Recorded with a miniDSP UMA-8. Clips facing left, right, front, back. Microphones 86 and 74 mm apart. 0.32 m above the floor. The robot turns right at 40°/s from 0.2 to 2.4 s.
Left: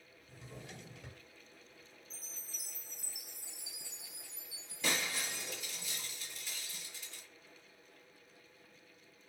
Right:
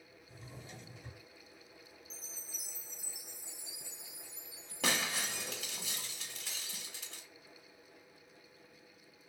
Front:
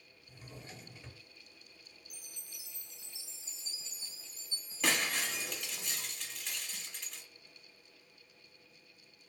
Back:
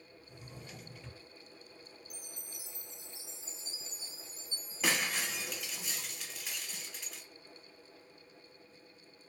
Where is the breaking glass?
95° right, 0.9 m.